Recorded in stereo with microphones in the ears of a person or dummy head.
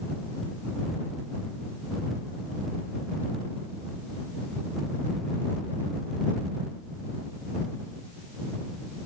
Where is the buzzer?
No buzzer in this recording.